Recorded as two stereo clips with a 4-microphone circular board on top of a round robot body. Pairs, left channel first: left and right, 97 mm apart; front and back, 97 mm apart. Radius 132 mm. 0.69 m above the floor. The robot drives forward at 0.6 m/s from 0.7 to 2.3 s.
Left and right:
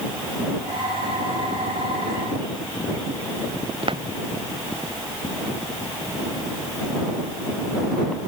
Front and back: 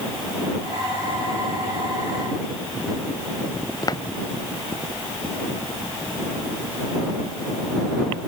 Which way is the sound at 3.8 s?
55° right.